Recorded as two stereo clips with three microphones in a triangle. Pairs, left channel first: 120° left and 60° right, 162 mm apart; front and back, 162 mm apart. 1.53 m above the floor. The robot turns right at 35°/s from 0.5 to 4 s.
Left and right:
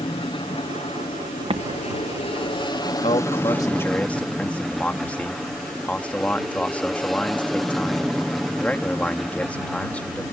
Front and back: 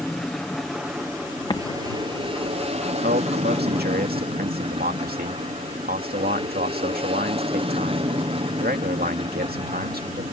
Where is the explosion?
40° right; by 2.6 s 5° right.